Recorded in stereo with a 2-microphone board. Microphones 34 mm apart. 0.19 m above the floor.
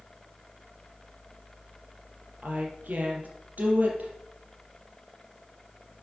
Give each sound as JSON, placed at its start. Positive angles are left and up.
{"t": 2.4, "sound": "a woman speaking", "side_deg": -55, "distance_m": 5.0}